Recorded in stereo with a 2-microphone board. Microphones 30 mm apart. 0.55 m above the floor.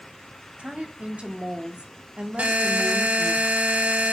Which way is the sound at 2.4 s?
55° right (ahead or behind).